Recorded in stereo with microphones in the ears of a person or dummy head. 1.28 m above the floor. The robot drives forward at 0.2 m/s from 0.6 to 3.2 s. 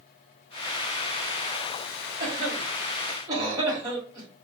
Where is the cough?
25° right (ahead or behind), 1.1 m; by 4.3 s 20° right (ahead or behind), 1.3 m.